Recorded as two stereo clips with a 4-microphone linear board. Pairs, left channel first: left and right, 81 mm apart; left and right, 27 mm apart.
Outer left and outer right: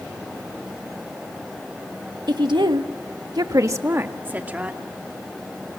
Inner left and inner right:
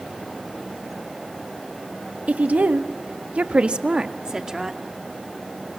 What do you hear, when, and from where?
2.3 s a woman speaking: 60° right (ahead or behind), 1.5 m; by 4.8 s 15° right (ahead or behind), 2.5 m